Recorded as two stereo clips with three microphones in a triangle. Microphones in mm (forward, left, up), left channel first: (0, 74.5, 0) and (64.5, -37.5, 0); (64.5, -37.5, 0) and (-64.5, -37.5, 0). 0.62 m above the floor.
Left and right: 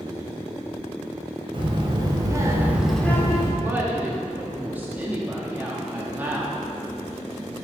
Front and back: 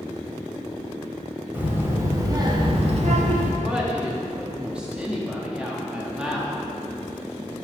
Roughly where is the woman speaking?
Right.